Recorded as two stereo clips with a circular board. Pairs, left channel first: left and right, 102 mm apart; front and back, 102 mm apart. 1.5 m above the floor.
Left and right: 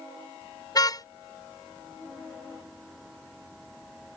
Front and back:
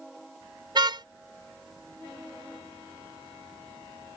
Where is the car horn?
140° left.